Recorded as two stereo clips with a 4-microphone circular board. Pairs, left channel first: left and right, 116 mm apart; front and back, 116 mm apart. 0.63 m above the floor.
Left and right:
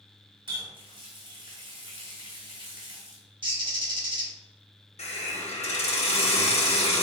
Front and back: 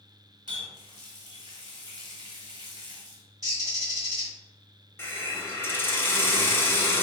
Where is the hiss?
70° left, 0.9 m.